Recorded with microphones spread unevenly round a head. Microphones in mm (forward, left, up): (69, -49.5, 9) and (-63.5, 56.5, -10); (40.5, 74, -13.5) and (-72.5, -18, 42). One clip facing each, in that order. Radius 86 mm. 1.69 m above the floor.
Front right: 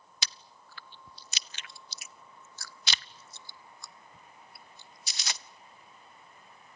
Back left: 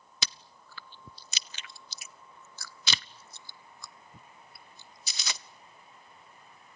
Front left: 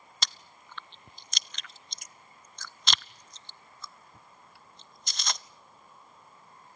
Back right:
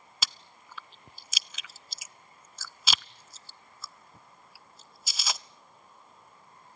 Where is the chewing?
130° left, 0.6 m.